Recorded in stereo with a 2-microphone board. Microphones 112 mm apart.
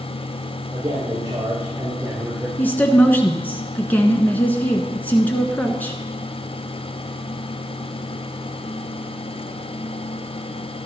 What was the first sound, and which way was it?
A man speaking, 40° right (ahead or behind).